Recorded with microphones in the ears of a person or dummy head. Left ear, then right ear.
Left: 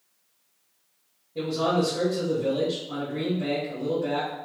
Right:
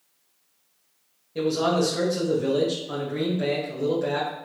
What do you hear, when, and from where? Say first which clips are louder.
1.4 s a man speaking: right 2 dB; 65° right (ahead or behind), 1.1 m